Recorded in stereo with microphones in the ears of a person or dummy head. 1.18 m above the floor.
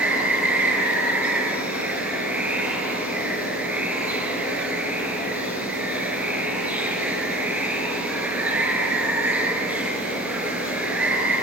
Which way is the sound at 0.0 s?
5° right (ahead or behind).